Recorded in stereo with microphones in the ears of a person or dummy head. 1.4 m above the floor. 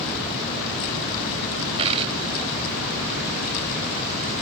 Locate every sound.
1.8 s a dropped coin: 35° right (ahead or behind)